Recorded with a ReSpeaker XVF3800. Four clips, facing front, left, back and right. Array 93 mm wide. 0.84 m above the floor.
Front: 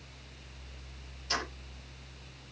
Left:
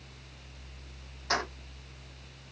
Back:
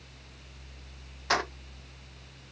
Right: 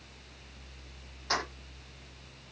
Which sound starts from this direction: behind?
Keys jangling, at 1.3 s.